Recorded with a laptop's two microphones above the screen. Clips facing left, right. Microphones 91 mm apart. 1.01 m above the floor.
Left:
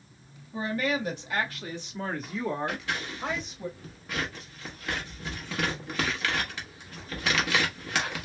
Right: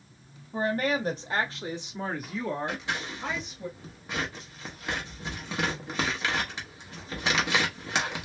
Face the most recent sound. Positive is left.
turn(degrees=-20)  # may be behind; listen again after turning